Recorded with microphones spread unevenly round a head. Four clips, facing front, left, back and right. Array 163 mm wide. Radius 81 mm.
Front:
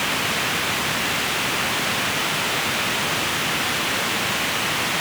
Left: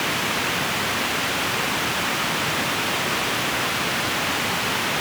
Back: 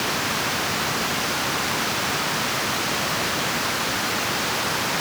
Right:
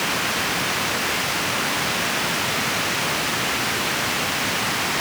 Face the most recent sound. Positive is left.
No sound to turn to.